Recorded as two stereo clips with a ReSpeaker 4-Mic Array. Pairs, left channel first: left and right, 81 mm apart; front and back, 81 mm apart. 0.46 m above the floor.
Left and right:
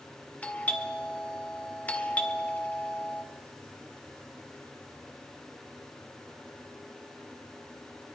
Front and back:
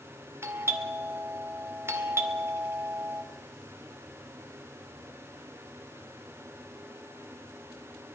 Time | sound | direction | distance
0.4 | a doorbell | 150° left | 2 m